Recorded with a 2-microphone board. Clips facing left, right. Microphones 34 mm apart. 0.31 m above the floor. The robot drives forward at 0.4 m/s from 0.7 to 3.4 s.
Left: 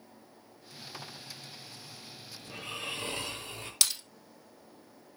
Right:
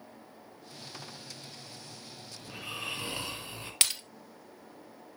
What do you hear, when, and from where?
2.4 s snoring: 15° right (ahead or behind), 4 m
3.8 s breaking glass: 40° right (ahead or behind), 1.5 m